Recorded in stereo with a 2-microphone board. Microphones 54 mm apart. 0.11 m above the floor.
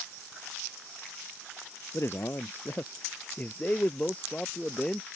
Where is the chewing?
I don't hear chewing.